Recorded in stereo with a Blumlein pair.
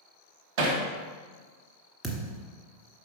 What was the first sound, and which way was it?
Hammering, 45° right.